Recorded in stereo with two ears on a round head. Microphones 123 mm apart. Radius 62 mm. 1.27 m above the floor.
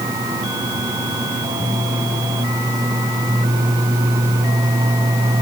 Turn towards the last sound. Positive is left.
No sound to turn to.